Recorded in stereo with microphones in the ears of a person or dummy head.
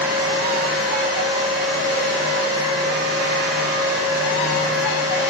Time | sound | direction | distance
0.0 | a fan | 20° right (ahead or behind) | 1.2 m